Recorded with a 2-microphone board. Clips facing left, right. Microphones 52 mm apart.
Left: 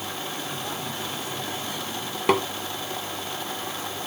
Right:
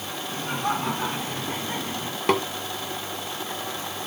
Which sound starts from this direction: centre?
Tapping, at 2.3 s.